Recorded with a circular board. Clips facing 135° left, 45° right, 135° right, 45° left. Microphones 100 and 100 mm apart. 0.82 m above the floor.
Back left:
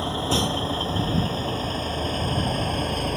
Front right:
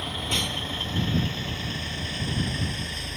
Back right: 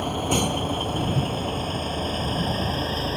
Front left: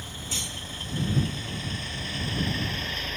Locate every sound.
0.0 s a vehicle: 165° right; by 3.2 s 170° left